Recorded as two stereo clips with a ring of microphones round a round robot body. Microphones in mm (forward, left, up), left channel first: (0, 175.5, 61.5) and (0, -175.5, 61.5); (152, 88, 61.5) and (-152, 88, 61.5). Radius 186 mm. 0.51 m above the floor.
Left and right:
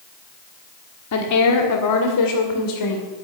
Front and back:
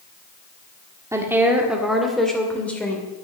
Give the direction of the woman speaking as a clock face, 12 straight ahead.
9 o'clock.